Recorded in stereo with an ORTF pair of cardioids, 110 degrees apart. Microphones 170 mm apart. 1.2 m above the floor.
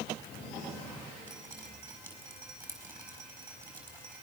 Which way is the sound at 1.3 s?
15° right.